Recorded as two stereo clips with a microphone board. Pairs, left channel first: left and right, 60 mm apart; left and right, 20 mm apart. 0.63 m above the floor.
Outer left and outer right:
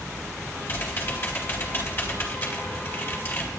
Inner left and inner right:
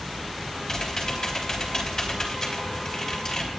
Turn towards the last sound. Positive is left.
turn(degrees=40)  # may be behind; listen again after turning